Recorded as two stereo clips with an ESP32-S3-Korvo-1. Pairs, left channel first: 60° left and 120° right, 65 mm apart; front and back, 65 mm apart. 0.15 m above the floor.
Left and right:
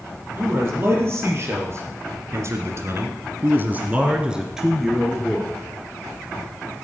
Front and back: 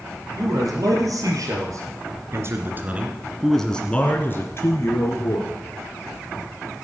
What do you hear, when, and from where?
0.4 s a man speaking: 175° right, 4.5 m; by 5.5 s 25° right, 3.5 m